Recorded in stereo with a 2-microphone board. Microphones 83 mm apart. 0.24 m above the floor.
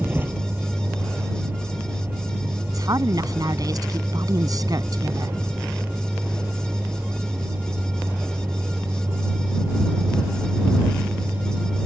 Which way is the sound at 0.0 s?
25° right (ahead or behind).